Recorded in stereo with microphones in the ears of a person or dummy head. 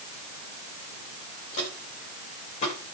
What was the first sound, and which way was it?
Footsteps, 40° left (ahead or behind).